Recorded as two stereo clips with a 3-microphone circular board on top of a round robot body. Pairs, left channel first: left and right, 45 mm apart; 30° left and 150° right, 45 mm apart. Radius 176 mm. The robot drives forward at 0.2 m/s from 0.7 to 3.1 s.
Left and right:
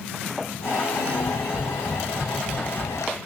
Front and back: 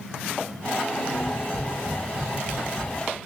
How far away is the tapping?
About 0.7 m.